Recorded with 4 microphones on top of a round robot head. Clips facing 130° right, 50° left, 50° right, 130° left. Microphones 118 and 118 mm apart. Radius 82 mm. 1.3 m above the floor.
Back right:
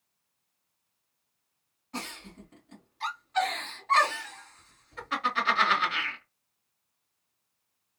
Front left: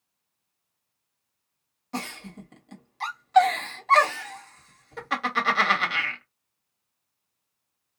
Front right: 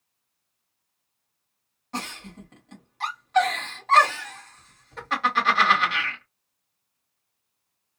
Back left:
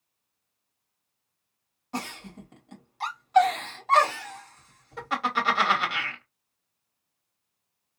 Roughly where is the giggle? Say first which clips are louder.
Front left 6 dB, even; ahead left.